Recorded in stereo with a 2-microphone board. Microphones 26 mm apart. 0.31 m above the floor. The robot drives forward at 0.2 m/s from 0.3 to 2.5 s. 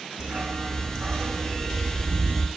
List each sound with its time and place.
0.2 s a dog barking: 80° right, 1.2 m